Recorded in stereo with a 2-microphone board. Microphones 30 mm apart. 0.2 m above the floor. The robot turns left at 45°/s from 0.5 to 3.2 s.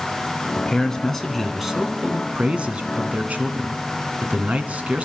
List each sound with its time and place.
0.6 s a man speaking: 35° left, 1.6 m; by 5.0 s 85° right, 1.6 m